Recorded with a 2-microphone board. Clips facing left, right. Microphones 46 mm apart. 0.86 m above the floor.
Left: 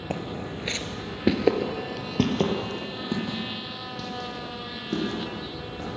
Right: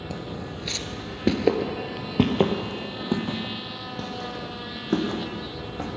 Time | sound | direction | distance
0.1 | footsteps | 45° left (ahead or behind) | 1.1 m